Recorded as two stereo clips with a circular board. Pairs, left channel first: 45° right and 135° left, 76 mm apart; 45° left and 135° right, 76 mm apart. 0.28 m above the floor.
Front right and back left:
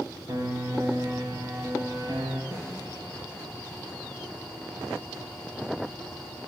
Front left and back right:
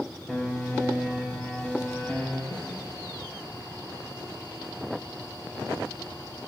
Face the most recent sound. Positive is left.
turn(degrees=80)